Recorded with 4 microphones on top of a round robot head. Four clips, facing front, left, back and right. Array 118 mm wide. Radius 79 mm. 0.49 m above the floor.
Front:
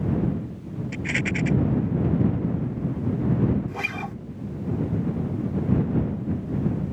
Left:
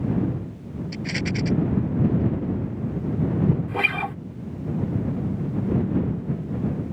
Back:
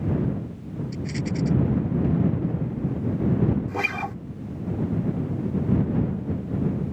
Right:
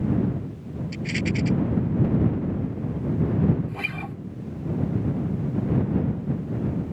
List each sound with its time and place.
0.9 s a rattle: 25° left
3.7 s a guitar: 115° left